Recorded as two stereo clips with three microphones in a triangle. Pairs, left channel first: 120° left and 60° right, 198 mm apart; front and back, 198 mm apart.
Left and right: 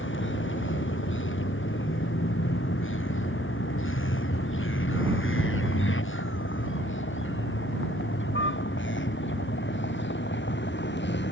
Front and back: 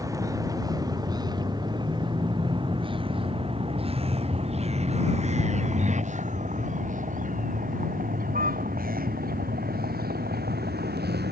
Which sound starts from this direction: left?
A vehicle, at 0.0 s.